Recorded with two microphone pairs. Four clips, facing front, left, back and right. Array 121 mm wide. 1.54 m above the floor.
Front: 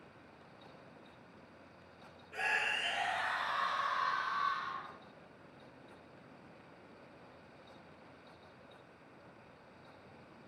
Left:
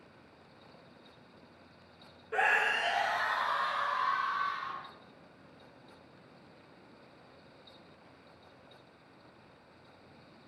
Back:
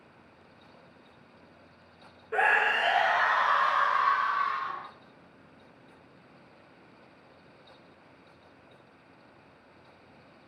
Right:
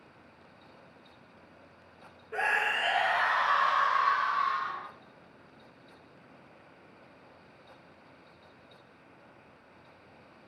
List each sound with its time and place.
2.3 s a scream: 165° left, 0.9 m; by 4.9 s 130° right, 2 m